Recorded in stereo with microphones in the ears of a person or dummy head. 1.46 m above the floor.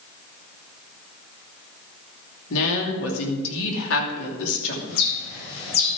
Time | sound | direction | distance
2.5 | a woman speaking | 70° left (ahead or behind) | 2.5 m
4.9 | a bird | 80° left | 5.5 m